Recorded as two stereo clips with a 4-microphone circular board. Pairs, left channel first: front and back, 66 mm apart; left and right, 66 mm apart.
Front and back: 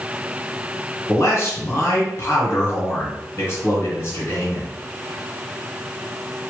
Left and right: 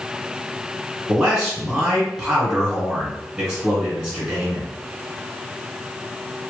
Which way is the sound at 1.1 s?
25° right.